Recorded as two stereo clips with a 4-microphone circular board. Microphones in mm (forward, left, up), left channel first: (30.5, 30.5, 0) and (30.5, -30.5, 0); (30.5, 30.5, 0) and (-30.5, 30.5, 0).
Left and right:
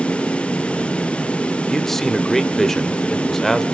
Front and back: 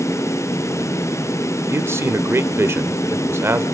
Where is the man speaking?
170° left, 1.1 m.